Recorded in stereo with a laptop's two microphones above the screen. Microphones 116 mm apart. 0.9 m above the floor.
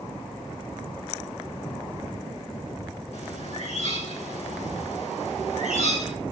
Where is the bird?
60° left (ahead or behind), 9 m.